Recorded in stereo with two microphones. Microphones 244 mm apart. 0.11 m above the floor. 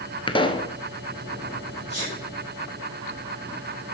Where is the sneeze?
30° left (ahead or behind), 3.5 m.